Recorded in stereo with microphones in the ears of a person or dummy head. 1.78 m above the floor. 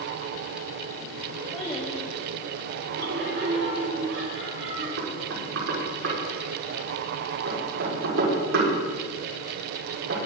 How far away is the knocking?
About 5.5 m.